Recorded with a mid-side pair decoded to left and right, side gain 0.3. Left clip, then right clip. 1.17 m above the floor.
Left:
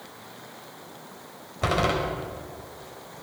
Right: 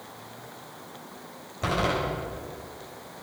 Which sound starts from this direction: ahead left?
A door slam, at 1.6 s.